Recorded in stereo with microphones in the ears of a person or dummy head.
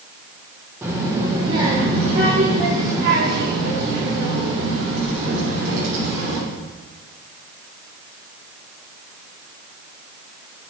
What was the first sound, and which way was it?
A child speaking, 15° right (ahead or behind).